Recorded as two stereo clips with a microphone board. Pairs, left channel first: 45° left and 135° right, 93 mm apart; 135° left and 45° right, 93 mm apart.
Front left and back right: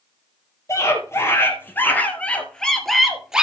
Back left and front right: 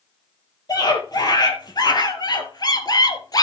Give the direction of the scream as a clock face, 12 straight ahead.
9 o'clock.